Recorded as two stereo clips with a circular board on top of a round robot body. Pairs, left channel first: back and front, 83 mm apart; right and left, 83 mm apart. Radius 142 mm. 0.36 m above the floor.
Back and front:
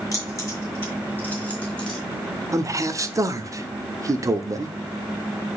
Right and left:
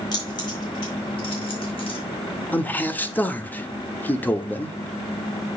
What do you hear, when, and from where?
0.1 s keys jangling: 125° right, 5 m; by 2.0 s 95° right, 3.5 m
2.5 s a man speaking: 30° right, 1.1 m